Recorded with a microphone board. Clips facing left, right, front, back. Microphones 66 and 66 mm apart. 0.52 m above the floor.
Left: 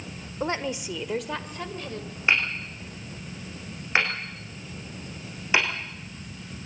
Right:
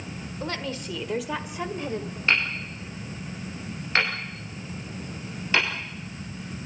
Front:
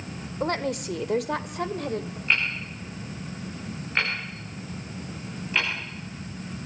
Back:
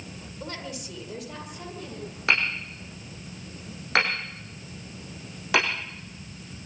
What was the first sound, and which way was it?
A woman speaking, 30° left.